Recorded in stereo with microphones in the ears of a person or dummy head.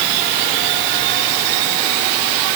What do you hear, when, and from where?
Only background noise.